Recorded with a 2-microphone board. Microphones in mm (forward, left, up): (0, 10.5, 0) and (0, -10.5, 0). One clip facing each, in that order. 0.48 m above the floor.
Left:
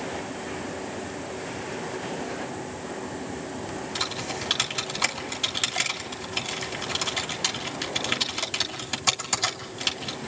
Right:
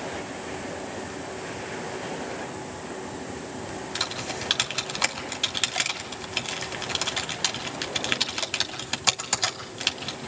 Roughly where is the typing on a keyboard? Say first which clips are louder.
Even; centre.